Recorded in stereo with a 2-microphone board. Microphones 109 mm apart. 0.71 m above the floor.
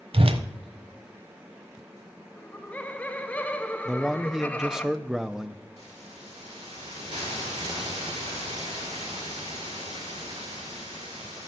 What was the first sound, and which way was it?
A whoosh, 55° right (ahead or behind).